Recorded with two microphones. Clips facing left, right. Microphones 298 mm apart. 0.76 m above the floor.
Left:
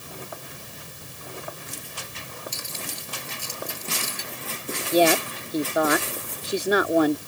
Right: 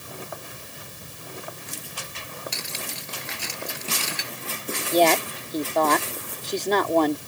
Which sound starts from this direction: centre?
A woman speaking, at 4.9 s.